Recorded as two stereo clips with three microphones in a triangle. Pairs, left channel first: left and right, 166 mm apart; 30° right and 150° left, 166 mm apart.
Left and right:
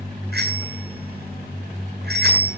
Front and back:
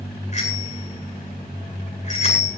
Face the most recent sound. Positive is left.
turn(degrees=-75)